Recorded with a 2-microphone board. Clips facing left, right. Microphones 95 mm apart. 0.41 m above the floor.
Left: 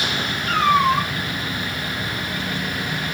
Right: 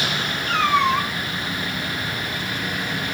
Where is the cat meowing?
40° left (ahead or behind), 3.5 m.